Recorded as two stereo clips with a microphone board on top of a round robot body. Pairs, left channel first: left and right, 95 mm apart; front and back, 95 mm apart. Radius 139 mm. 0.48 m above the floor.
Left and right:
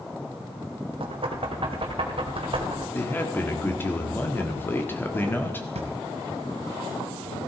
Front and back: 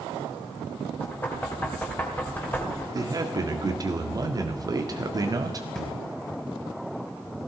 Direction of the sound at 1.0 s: 70° right.